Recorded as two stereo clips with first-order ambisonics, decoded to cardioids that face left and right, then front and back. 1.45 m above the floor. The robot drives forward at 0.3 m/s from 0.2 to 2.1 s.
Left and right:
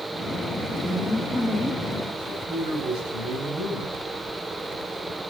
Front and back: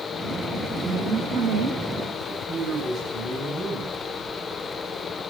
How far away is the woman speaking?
About 2.5 m.